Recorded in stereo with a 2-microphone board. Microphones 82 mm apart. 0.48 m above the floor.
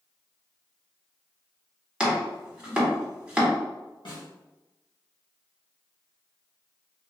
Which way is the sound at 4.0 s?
70° left (ahead or behind).